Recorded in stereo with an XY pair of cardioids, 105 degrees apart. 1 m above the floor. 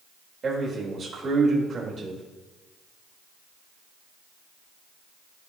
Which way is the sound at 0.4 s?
45° right.